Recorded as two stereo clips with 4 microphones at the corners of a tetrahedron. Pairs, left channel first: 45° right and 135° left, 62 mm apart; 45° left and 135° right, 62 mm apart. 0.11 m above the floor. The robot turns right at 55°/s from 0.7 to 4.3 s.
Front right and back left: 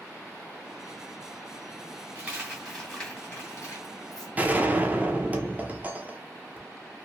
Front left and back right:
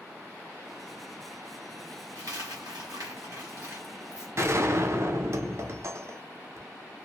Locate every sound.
2.1 s a dropped coin: 170° right, 1.7 m; by 4.3 s 50° right, 1.7 m
4.4 s a gunshot: 165° right, 0.7 m